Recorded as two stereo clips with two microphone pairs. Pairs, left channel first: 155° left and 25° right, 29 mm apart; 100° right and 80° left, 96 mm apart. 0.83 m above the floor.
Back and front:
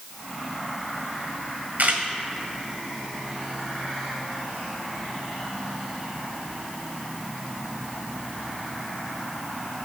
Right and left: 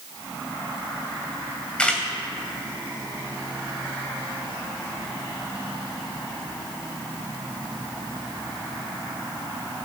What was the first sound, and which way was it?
A camera shutter, 20° right.